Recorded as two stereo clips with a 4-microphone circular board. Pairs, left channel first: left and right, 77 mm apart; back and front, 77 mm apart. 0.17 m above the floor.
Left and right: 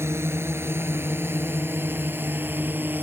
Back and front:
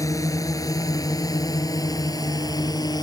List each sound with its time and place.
0.0 s a drone: 145° right; by 3.0 s 155° right